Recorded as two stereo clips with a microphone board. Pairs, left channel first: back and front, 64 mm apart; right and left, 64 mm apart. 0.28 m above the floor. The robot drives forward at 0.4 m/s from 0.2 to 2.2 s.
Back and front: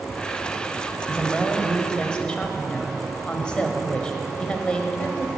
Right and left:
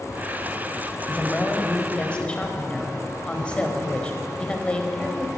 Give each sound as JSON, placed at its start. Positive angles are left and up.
{"t": 1.1, "sound": "a woman speaking", "azimuth_deg": -55, "distance_m": 0.9}